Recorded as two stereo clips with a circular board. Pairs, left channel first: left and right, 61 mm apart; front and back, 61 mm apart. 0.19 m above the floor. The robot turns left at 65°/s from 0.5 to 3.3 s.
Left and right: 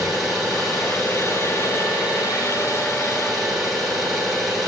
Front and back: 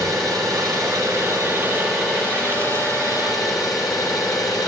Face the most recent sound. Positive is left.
turn(degrees=5)